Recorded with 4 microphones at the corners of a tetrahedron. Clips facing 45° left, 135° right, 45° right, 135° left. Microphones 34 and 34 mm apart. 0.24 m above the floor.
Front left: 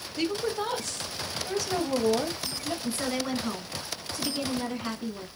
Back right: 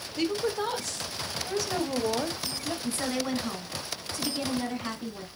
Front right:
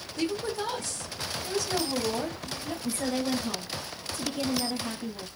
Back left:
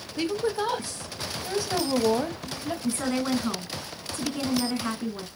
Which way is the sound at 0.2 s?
135° left.